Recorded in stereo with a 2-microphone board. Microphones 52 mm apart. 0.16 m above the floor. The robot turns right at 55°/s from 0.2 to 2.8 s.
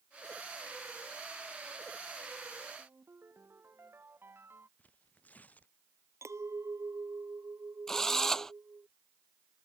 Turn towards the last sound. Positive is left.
turn(degrees=10)  # may be behind; listen again after turning